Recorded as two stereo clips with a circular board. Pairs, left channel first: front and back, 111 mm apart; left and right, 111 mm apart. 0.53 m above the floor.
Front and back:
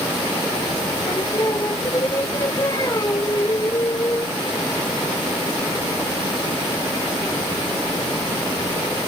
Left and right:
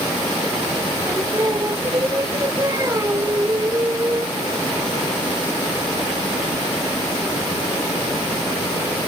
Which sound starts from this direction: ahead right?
Singing, at 1.1 s.